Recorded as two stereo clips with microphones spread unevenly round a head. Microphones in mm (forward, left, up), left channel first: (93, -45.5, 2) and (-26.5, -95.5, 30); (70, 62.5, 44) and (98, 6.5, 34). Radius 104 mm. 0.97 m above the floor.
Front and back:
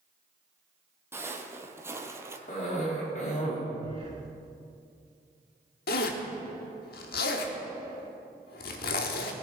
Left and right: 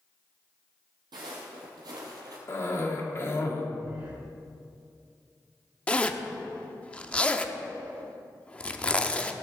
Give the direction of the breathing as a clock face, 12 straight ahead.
4 o'clock.